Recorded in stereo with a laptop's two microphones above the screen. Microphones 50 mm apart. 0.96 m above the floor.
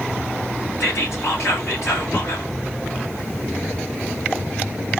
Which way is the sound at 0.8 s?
75° left (ahead or behind).